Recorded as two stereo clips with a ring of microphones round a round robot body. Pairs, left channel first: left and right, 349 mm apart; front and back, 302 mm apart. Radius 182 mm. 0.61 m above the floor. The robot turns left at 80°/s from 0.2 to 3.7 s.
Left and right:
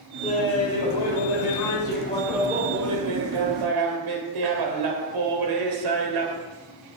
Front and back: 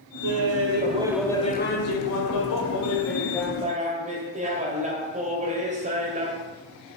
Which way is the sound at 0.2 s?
170° left.